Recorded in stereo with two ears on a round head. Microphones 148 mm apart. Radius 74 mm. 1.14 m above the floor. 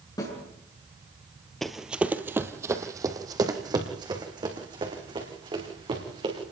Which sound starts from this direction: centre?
Running footsteps, at 1.6 s.